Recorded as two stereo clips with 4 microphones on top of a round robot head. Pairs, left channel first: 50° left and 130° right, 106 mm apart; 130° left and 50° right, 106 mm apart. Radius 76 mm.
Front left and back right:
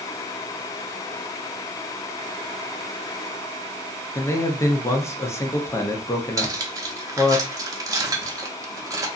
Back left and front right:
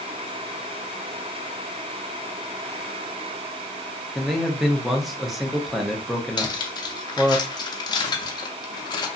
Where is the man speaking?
40° left, 0.6 m.